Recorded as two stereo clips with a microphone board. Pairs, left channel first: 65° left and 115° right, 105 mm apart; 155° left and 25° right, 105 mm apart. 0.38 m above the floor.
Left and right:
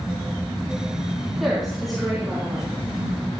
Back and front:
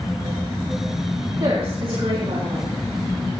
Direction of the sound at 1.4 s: 20° right.